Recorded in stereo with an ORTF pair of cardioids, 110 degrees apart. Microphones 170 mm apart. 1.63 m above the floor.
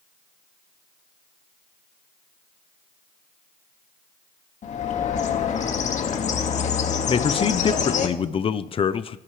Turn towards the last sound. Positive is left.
turn(degrees=35)